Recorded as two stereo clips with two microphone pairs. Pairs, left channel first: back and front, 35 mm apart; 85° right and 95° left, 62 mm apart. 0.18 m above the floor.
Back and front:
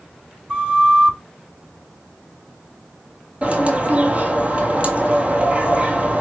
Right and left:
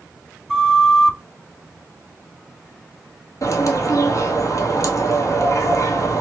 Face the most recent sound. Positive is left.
turn(degrees=-55)